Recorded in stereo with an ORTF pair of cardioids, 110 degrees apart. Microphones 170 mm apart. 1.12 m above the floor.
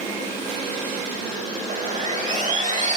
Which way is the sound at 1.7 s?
45° right.